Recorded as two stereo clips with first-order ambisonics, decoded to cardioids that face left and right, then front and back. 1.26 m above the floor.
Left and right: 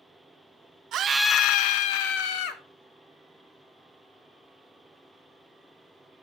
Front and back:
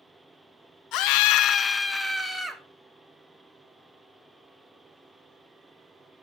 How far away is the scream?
About 0.7 m.